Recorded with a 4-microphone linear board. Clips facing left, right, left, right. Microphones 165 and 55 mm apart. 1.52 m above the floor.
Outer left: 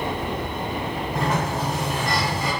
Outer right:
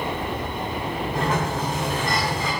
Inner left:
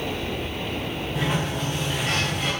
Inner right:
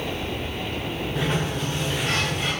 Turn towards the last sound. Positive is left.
turn(degrees=5)  # may be behind; listen again after turning